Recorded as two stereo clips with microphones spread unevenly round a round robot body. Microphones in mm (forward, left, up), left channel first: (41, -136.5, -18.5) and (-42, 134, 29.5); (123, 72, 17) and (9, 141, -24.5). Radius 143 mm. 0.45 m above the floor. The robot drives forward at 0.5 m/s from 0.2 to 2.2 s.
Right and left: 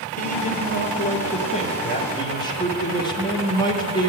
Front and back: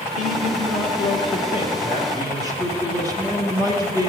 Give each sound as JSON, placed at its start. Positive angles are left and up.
{"t": 0.2, "sound": "a man speaking", "azimuth_deg": -30, "distance_m": 1.3}